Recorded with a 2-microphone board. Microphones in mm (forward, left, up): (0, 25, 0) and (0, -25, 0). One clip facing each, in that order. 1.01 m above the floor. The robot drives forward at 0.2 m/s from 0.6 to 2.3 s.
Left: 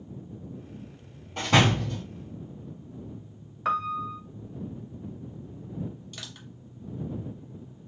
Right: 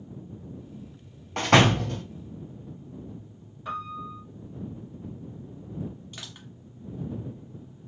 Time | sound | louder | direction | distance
1.4 | a door slam | right 3 dB | 70° right (ahead or behind) | 0.8 m
3.6 | a piano | left 7 dB | 75° left (ahead or behind) | 0.6 m
6.1 | crushing | even | 20° right (ahead or behind) | 1.2 m